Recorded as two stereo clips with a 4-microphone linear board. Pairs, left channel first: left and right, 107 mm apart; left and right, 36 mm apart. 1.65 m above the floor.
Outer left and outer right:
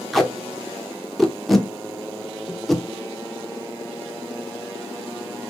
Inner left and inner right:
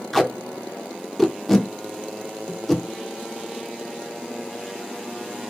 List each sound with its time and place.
0.1 s tape being pulled: centre (ahead or behind), 0.7 m